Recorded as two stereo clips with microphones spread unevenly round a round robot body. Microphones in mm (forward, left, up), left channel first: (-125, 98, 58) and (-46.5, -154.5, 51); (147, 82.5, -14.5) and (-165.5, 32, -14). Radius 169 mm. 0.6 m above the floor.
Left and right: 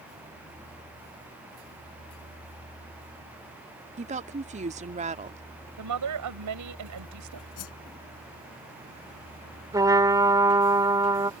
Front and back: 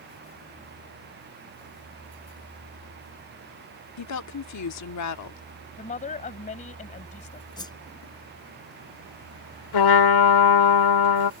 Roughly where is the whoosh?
Left.